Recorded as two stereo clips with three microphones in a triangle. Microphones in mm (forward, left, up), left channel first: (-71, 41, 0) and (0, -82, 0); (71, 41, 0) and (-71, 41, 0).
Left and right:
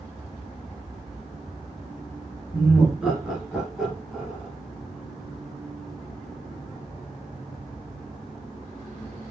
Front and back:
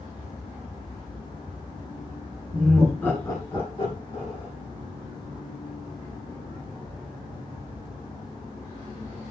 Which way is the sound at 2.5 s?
130° right.